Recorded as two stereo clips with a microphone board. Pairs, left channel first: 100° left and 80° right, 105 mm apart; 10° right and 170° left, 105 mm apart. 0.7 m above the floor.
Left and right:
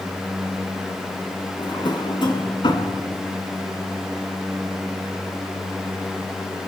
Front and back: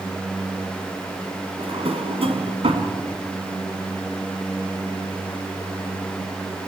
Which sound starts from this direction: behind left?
A drawer, at 1.6 s.